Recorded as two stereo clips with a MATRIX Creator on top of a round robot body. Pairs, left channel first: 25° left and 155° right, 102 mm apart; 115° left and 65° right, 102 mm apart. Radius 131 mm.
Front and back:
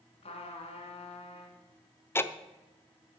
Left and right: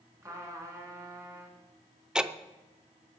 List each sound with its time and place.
0.2 s a trumpet: 5° right, 1.8 m
2.1 s ticking: 5° left, 0.7 m